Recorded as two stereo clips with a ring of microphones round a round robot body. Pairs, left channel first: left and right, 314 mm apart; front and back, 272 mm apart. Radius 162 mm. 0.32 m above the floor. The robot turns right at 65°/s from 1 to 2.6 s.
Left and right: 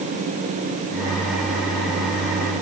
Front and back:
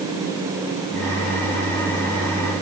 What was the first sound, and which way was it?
Only background noise.